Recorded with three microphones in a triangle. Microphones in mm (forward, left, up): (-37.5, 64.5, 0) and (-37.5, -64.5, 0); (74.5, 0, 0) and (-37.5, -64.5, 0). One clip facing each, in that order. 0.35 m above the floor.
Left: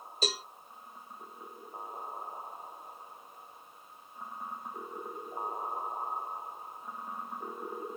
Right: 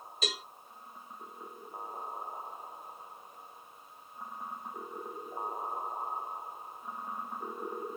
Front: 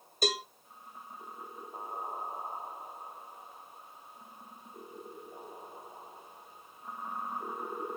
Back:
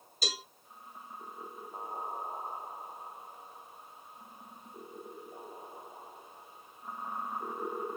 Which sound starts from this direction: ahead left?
A cowbell, at 0.2 s.